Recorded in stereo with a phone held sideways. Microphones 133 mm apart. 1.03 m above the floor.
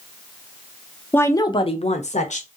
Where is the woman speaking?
15° left (ahead or behind), 0.6 m; by 2.5 s 60° left (ahead or behind), 0.9 m.